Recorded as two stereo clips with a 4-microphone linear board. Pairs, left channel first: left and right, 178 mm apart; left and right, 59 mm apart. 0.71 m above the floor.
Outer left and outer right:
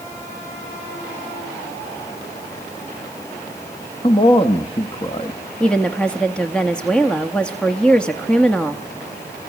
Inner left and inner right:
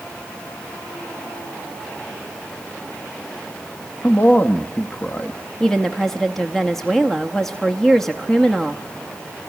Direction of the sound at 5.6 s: 5° left (ahead or behind).